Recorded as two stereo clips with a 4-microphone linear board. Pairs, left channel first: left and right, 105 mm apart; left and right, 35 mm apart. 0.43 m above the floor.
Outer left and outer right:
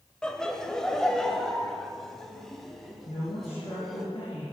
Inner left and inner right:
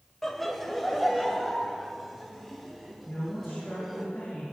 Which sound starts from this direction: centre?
Laughter, at 0.2 s.